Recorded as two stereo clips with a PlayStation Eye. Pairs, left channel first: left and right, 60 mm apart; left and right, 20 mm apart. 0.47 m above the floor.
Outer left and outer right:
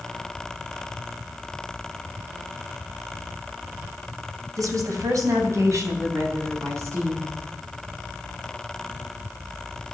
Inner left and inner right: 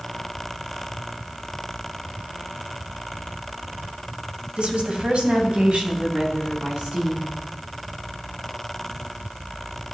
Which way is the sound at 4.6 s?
70° right (ahead or behind).